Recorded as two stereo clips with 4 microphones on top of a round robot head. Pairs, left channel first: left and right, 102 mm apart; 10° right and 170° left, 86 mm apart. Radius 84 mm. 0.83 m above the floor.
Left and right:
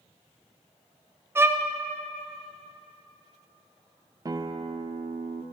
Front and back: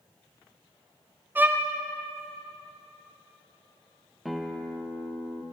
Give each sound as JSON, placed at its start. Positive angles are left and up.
{"t": 1.4, "sound": "a violin", "azimuth_deg": -135, "distance_m": 0.5}
{"t": 4.2, "sound": "a guitar", "azimuth_deg": -100, "distance_m": 0.5}